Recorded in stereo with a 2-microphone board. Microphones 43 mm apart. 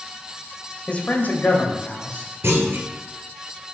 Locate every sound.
0.9 s a man speaking: 30° left (ahead or behind), 1.2 m; by 2.3 s 45° left (ahead or behind), 2 m
2.4 s a clunk: 70° right (ahead or behind), 1.9 m